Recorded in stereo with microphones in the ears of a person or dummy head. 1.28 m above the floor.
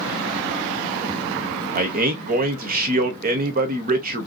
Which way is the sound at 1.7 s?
45° right (ahead or behind).